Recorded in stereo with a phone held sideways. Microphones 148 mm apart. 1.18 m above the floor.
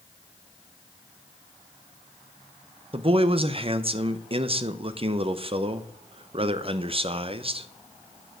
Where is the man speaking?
40° right (ahead or behind), 0.6 m.